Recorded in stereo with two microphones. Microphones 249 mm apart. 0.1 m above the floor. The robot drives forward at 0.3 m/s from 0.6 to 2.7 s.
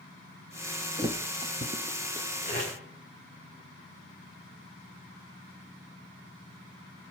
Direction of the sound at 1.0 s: 20° right (ahead or behind).